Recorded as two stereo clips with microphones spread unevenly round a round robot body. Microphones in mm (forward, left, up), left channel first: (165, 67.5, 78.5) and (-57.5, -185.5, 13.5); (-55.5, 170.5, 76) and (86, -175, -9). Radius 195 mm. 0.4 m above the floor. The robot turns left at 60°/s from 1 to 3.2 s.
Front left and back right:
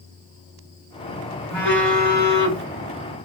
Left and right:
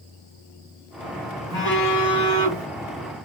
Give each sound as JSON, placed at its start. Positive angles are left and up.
{"t": 1.5, "sound": "a phone buzzing", "azimuth_deg": 95, "distance_m": 2.5}